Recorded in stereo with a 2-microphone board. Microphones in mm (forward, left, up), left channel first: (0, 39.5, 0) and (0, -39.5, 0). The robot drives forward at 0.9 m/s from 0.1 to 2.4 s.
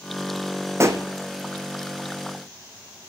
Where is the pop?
35° right (ahead or behind), 1.0 m; by 1.0 s 45° right (ahead or behind), 0.9 m.